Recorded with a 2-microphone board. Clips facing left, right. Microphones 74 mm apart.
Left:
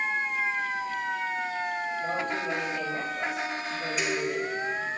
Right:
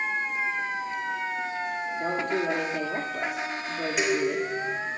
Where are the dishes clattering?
70° right (ahead or behind), 4 m.